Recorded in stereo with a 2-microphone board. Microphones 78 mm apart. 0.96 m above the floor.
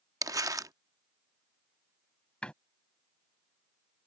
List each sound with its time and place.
0.2 s crumpling: 45° right (ahead or behind)
2.4 s a door slam: 15° left (ahead or behind)